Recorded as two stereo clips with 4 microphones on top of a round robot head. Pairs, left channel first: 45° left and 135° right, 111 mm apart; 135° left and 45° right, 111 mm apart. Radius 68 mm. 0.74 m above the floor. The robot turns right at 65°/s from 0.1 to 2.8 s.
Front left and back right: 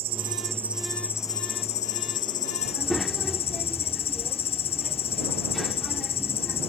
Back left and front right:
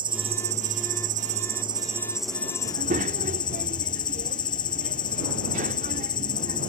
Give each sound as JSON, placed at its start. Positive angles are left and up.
{"t": 0.0, "sound": "an insect", "azimuth_deg": -95}
{"t": 2.6, "sound": "a child speaking", "azimuth_deg": -55}